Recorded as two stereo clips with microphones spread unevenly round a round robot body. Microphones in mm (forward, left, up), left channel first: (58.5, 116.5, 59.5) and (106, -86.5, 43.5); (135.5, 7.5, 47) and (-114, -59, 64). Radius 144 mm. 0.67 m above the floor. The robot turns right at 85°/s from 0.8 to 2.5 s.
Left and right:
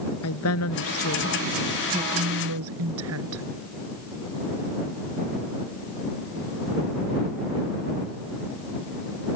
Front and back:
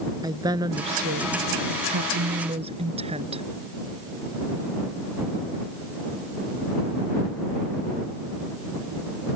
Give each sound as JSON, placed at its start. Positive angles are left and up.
{"t": 0.2, "sound": "a woman speaking", "azimuth_deg": 120}